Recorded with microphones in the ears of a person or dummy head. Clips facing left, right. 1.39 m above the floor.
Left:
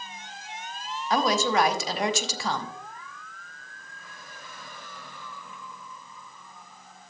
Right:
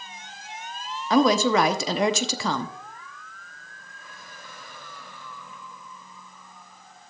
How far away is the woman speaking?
About 0.8 m.